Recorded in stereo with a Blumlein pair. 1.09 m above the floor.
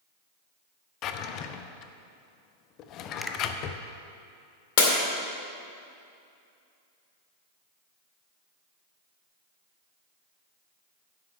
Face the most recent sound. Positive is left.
turn(degrees=50)